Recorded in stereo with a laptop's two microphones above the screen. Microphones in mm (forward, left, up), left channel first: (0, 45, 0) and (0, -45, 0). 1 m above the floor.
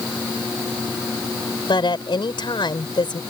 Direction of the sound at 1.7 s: 60° left (ahead or behind).